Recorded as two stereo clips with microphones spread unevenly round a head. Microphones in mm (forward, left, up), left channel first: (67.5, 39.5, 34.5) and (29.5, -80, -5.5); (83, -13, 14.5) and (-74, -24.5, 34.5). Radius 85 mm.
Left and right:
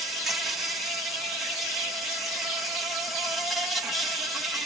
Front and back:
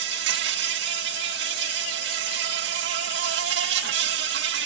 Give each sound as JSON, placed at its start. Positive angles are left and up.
{"t": 0.0, "sound": "an insect", "azimuth_deg": 170}